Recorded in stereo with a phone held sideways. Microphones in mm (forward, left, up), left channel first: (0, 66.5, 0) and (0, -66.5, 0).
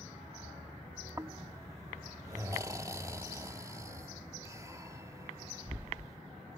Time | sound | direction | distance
1.2 | snoring | 25° right (ahead or behind) | ?